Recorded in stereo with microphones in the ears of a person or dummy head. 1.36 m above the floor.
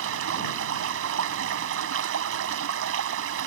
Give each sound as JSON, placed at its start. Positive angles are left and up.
{"t": 0.0, "sound": "running water", "side_deg": -75}